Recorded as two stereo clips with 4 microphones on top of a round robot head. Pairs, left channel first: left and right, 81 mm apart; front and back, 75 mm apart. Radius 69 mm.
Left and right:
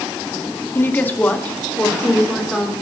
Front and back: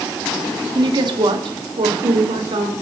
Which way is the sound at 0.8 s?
150° left.